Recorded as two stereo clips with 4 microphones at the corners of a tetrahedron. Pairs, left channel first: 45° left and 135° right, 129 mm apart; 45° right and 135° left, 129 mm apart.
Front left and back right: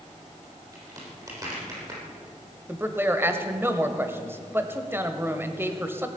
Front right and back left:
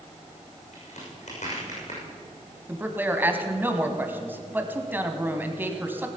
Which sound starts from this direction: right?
A crack, at 0.7 s.